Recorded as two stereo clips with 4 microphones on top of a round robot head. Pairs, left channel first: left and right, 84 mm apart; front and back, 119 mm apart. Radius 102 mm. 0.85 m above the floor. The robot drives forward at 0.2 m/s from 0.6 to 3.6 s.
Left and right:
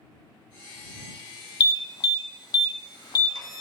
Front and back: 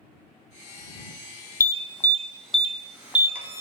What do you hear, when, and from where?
1.6 s an alarm: 60° left, 0.6 m; by 3.6 s 115° left, 0.6 m